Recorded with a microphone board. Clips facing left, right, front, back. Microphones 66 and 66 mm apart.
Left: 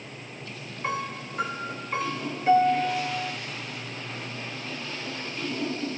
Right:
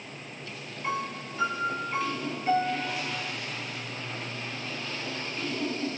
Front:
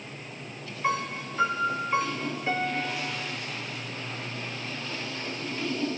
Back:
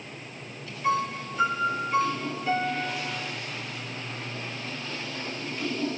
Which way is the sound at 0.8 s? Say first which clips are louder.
Left 1 dB, back 3 dB; 55° left.